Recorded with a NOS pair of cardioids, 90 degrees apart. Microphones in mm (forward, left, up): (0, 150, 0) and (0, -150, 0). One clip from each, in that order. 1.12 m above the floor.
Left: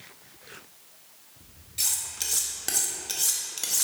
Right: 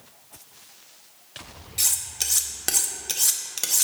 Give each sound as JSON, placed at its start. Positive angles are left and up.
{"t": 1.8, "sound": "cutlery clinking", "azimuth_deg": -30, "distance_m": 0.8}